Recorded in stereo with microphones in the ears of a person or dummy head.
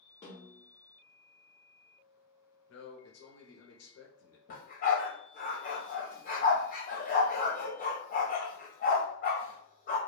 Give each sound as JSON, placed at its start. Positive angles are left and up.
{"t": 0.2, "sound": "a snare drum", "side_deg": 15, "distance_m": 1.2}
{"t": 2.7, "sound": "a man speaking", "side_deg": 75, "distance_m": 0.7}
{"t": 4.5, "sound": "a dog barking", "side_deg": 45, "distance_m": 0.9}